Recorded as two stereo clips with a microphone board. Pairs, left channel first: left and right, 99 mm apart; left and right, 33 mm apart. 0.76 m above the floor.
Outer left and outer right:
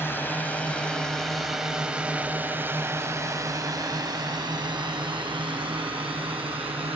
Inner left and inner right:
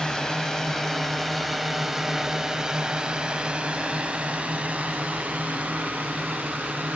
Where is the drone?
20° left (ahead or behind); by 7.0 s 65° right (ahead or behind).